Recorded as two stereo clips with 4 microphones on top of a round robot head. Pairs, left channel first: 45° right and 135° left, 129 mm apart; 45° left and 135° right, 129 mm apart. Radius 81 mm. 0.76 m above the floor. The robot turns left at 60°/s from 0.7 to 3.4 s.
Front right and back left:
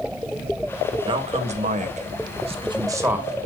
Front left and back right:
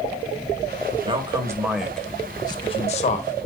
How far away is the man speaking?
About 1.9 m.